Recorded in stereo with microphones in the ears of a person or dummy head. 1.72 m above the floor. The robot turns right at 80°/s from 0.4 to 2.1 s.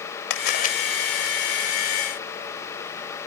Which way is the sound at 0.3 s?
60° left (ahead or behind).